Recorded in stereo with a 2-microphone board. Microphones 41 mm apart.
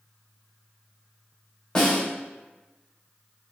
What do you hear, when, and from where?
1.8 s a snare drum: 20° left (ahead or behind), 1.7 m